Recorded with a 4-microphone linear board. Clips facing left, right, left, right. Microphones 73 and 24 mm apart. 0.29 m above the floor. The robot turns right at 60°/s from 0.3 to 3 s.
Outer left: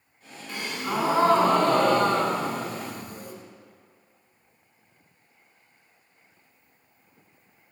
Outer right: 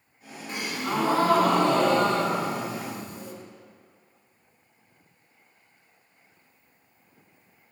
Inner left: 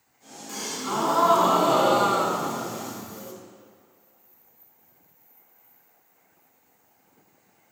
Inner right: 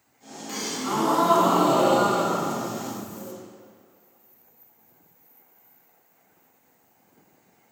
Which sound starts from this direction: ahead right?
A gasp, at 0.5 s.